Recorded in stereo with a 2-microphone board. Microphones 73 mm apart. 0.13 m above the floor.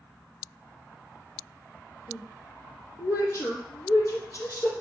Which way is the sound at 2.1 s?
40° left (ahead or behind).